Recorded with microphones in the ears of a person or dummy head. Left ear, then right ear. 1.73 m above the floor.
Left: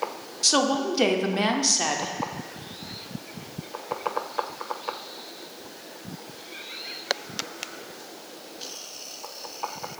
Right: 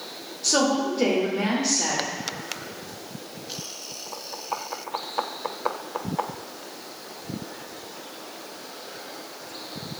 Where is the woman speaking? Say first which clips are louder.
Even; 45° left (ahead or behind), 0.6 m.